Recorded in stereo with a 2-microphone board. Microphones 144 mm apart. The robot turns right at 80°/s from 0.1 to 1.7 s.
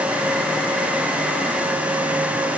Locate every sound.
Only background noise.